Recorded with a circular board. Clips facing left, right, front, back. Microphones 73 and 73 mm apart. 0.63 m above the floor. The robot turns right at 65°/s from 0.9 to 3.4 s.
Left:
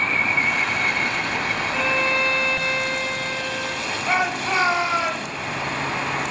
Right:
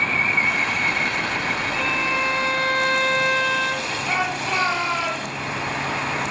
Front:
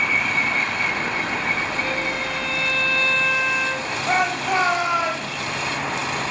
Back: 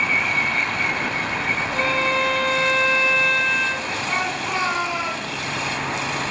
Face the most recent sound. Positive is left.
turn(degrees=20)